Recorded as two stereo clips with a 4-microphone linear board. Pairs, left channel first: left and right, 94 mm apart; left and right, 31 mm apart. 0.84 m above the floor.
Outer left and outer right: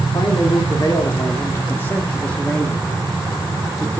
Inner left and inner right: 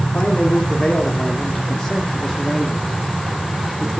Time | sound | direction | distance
0.1 | a man speaking | 45° left (ahead or behind) | 2 m